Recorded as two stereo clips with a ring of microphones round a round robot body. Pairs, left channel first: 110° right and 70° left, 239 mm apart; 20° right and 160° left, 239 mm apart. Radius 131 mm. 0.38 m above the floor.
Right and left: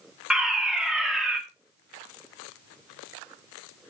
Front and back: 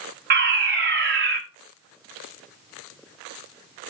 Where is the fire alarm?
155° left, 2.5 m.